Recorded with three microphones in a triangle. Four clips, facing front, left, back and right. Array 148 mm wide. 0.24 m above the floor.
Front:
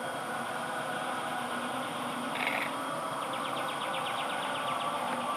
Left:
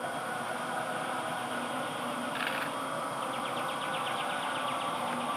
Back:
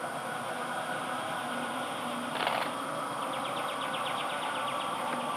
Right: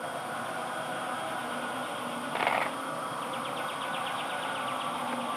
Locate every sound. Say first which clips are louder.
2.1 s a dropped coin: right 4 dB, back 2 dB; 110° right